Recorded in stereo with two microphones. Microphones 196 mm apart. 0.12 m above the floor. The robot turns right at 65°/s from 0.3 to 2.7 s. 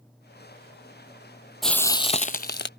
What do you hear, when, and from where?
1.6 s frying: straight ahead; by 2.7 s 70° left